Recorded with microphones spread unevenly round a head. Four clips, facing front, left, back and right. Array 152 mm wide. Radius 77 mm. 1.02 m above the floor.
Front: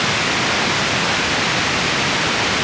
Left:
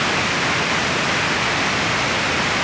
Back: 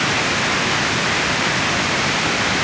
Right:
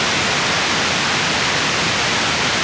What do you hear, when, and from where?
Only background noise.